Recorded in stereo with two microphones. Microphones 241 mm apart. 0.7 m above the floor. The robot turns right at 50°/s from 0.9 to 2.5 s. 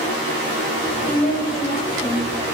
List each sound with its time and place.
1.0 s a woman speaking: 95° left, 1.2 m; by 2.3 s 160° left, 1.2 m